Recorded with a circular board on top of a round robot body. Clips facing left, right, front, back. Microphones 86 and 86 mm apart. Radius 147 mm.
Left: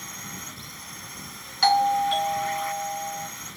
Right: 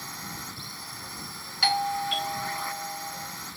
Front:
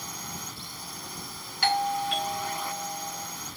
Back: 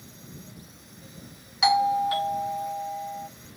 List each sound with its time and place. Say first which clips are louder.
0.0 s a drone: right 1 dB, front 7 dB; 10° right
1.6 s a doorbell: left 7 dB, back 5 dB; 130° left